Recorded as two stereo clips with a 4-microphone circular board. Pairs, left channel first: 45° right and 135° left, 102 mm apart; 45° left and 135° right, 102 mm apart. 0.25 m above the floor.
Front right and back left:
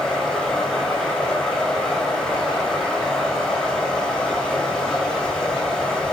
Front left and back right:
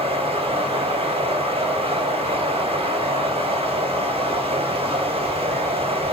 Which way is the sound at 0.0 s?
125° right.